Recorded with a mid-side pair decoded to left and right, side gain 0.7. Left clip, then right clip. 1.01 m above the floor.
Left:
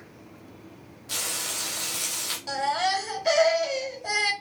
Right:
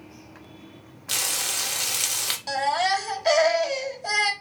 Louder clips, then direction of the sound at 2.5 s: Right 2 dB; 20° right.